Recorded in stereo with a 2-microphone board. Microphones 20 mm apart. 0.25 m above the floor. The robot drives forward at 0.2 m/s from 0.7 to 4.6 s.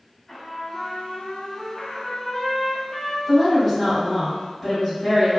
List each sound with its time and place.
0.3 s a trumpet: 15° left (ahead or behind), 0.8 m; by 3.2 s 20° left (ahead or behind), 0.5 m
3.3 s a woman speaking: 10° left (ahead or behind), 1.3 m